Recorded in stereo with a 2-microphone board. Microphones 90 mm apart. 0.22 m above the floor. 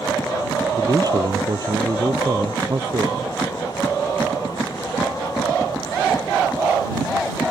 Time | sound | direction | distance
0.7 | a man speaking | 45° right (ahead or behind) | ?